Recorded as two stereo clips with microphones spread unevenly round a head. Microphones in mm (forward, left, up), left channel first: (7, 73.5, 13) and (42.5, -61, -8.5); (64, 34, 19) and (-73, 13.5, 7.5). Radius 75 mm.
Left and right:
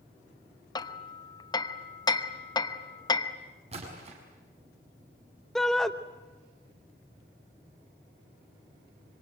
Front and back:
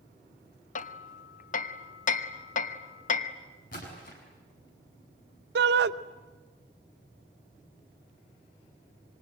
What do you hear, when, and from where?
0.8 s hammering: 45° left, 1.0 m
3.7 s a splash: 30° right, 6.5 m
5.5 s a shout: 170° right, 0.8 m